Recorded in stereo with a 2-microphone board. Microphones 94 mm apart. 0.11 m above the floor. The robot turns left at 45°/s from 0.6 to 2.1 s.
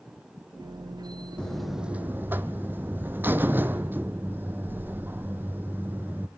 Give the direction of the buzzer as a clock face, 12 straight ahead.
12 o'clock.